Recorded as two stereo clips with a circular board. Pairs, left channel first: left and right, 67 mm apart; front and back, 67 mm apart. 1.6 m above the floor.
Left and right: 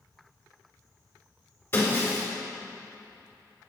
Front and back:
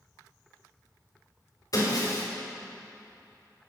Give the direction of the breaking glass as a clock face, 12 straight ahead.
11 o'clock.